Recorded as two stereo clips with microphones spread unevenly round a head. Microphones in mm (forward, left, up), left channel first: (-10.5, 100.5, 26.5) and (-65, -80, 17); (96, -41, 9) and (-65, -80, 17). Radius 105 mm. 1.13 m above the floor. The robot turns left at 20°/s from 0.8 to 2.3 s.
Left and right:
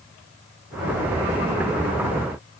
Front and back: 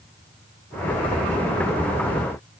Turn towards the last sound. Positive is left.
No sound to turn to.